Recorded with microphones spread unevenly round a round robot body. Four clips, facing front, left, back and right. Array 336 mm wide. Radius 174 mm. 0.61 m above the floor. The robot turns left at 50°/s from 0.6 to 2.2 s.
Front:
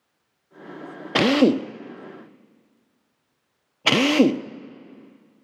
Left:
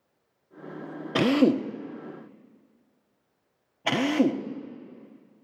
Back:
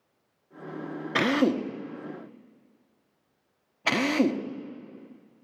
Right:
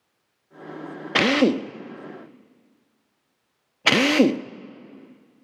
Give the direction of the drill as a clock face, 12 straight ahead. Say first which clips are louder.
Right 1 dB, front 6 dB; 11 o'clock.